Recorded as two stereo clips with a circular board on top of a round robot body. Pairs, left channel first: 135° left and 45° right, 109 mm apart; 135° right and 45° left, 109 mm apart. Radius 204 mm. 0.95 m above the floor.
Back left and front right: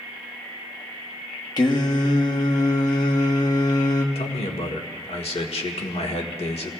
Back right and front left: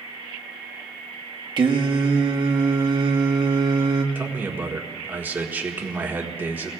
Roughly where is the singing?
Left.